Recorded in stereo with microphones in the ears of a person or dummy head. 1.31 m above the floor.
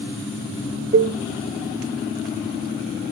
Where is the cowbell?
25° right (ahead or behind), 0.6 m.